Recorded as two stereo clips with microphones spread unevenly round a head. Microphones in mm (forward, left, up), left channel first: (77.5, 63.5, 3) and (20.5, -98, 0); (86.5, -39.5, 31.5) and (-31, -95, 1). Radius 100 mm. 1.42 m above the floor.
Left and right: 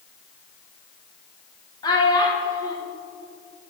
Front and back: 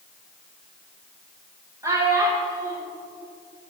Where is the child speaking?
125° left, 0.6 m.